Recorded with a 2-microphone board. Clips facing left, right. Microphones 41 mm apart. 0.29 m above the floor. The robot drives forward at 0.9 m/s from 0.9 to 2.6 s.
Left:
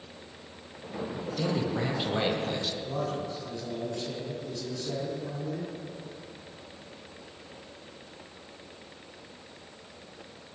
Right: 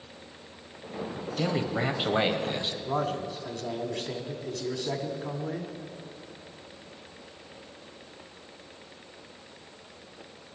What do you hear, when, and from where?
1.4 s a man speaking: 35° right (ahead or behind), 1.3 m; by 2.8 s 25° right (ahead or behind), 1.7 m
2.9 s a man speaking: 60° right (ahead or behind), 1.9 m